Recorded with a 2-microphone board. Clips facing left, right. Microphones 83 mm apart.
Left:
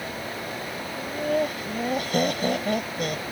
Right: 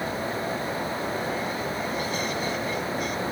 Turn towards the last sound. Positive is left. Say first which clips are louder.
# left 3 dB
turn(degrees=70)  # may be behind; listen again after turning